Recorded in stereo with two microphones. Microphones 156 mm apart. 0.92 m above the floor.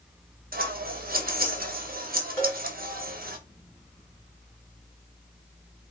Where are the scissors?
70° right (ahead or behind), 0.7 m.